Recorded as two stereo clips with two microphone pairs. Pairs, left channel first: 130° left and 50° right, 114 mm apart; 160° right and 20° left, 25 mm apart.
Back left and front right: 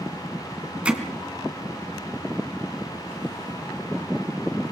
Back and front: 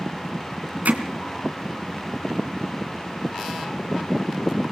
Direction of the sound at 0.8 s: 25° left.